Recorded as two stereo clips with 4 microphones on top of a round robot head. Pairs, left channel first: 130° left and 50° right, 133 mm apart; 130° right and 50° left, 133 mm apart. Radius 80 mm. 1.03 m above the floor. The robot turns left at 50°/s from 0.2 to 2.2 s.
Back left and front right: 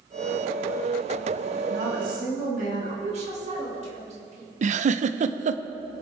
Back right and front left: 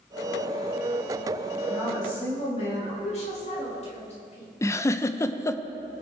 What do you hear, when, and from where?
1.7 s a woman speaking: 55° right, 5 m; by 2.9 s 80° right, 5 m
3.0 s a woman speaking: 90° right, 5 m
4.6 s a giggle: 65° right, 0.7 m